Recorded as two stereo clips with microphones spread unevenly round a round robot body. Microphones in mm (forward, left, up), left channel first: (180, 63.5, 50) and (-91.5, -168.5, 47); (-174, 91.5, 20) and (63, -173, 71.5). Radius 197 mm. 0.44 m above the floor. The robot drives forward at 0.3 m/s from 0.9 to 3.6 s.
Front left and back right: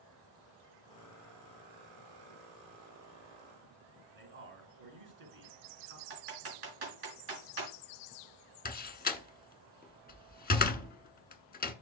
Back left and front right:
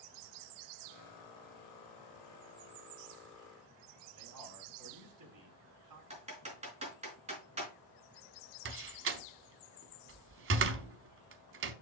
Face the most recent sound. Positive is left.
turn(degrees=-5)